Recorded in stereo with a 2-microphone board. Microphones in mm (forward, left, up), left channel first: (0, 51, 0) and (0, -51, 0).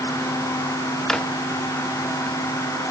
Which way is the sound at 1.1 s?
5° left (ahead or behind).